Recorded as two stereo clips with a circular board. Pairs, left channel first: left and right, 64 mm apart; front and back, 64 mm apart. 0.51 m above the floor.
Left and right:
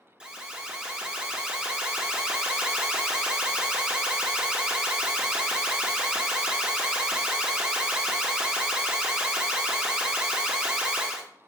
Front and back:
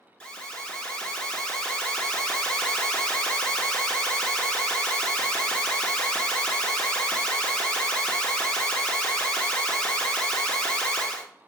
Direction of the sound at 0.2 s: 50° right.